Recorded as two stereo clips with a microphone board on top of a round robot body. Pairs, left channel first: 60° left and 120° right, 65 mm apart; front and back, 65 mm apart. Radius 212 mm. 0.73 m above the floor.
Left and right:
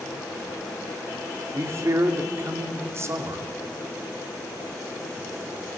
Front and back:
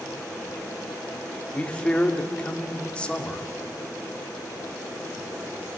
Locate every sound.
1.5 s a man speaking: 75° right, 2 m